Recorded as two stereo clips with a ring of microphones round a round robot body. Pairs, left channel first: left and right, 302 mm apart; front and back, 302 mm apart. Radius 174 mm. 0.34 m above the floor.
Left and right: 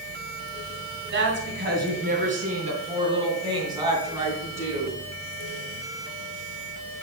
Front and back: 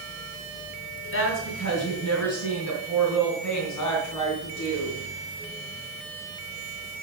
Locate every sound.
1.1 s a woman speaking: 40° right, 2.5 m; by 5.0 s 5° right, 4 m